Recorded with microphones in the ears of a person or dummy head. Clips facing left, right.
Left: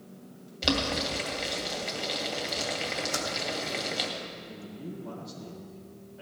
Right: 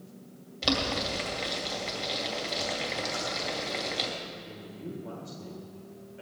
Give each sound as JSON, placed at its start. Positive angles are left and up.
{"t": 0.6, "sound": "boiling", "side_deg": 5, "distance_m": 2.0}
{"t": 3.1, "sound": "typing on a keyboard", "side_deg": 70, "distance_m": 2.5}
{"t": 4.5, "sound": "a man speaking", "side_deg": -40, "distance_m": 4.0}